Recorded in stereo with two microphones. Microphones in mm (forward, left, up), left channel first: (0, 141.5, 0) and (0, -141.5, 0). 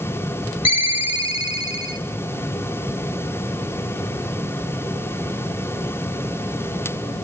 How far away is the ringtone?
About 1.1 m.